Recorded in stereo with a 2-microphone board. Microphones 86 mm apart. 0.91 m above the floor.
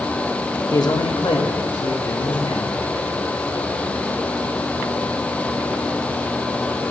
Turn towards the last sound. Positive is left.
turn(degrees=80)